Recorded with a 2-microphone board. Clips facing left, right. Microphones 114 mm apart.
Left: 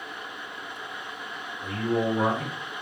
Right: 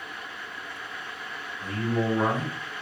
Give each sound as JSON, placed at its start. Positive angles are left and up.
{"t": 1.6, "sound": "a man speaking", "side_deg": -25, "distance_m": 1.9}